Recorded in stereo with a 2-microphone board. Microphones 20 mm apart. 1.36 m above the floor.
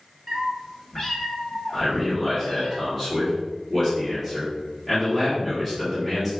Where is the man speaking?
5° left (ahead or behind), 2.0 m.